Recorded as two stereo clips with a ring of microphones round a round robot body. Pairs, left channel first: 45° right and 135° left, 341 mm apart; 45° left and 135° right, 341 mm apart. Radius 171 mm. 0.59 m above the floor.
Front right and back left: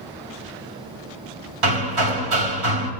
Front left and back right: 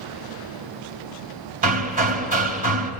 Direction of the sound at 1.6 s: 160° left.